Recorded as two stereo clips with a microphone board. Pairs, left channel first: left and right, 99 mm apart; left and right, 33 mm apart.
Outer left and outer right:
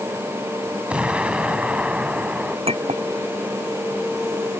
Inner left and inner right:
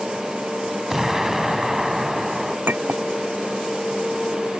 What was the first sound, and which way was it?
An explosion, 10° right (ahead or behind).